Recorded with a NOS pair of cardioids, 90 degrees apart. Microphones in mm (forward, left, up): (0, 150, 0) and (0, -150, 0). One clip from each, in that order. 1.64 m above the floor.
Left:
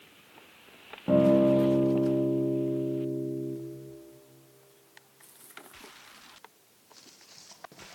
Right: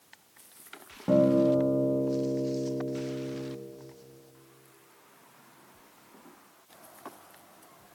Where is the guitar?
5° right, 2.5 m.